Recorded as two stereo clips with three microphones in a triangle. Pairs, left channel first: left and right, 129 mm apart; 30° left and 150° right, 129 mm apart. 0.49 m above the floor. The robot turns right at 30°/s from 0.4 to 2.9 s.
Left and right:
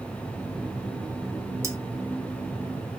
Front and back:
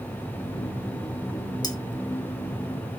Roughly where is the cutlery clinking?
Ahead right.